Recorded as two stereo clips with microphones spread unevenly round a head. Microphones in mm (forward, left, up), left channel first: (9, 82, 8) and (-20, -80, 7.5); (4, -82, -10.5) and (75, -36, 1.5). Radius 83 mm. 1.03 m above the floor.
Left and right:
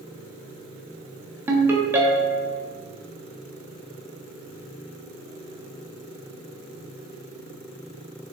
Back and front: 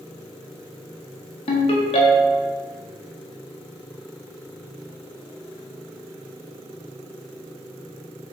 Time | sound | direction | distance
1.5 | a ringtone | 175° right | 0.7 m